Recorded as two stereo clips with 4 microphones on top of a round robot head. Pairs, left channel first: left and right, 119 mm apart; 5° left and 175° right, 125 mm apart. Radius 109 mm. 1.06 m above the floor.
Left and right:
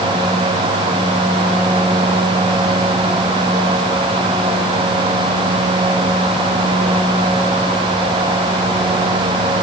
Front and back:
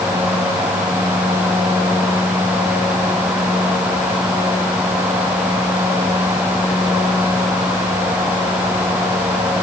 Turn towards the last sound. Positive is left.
No sound to turn to.